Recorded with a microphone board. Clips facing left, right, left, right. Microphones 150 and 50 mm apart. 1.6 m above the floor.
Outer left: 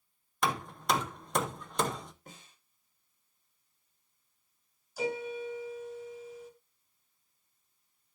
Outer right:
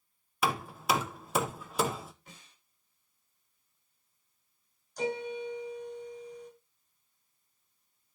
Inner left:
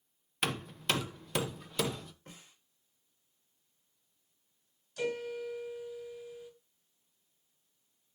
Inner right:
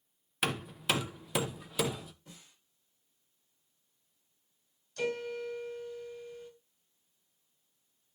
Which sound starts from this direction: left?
A snare drum, at 2.3 s.